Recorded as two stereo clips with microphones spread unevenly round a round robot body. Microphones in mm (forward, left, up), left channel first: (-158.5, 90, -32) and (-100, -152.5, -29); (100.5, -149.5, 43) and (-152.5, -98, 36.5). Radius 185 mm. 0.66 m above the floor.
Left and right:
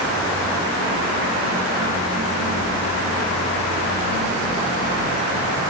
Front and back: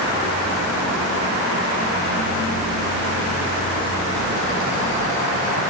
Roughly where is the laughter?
I don't hear laughter.